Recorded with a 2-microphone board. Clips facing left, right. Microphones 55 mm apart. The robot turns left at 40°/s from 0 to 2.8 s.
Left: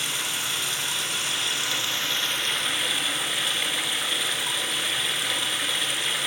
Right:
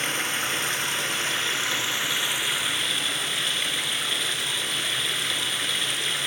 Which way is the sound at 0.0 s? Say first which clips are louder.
Right 3 dB; 70° right.